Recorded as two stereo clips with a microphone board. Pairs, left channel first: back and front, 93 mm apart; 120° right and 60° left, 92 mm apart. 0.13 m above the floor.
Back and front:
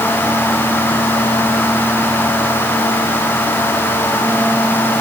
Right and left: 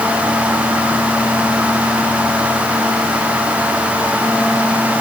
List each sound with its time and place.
Only background noise.